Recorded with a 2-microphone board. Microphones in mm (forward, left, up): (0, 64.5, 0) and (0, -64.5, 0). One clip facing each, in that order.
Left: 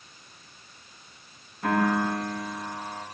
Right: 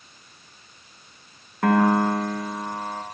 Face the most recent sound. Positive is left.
turn(degrees=-85)